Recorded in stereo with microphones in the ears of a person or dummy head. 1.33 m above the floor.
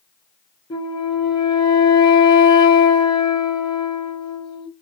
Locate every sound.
0.7 s a flute: 25° left (ahead or behind), 0.6 m